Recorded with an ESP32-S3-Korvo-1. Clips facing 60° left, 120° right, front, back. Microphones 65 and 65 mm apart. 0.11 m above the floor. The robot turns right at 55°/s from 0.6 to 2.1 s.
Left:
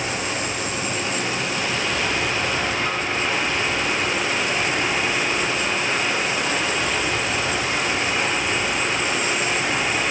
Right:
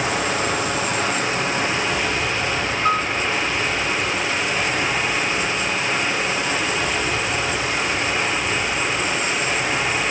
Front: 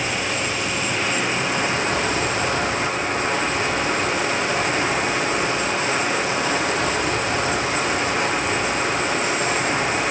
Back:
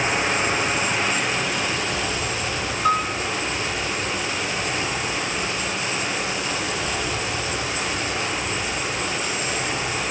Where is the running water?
110° right, 8.5 m; by 10.1 s 25° right, 8.5 m.